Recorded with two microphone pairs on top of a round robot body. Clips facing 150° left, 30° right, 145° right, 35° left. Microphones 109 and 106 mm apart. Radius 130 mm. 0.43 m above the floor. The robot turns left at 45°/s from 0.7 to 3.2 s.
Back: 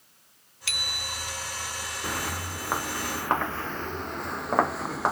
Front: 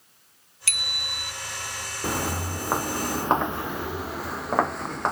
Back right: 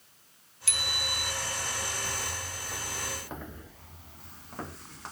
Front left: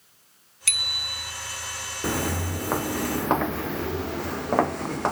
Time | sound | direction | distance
0.7 | a bicycle bell | 10° left | ?
2.0 | footsteps | 40° left | ?